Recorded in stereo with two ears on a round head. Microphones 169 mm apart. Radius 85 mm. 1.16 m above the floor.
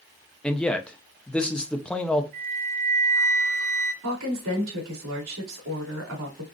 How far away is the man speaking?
About 0.5 m.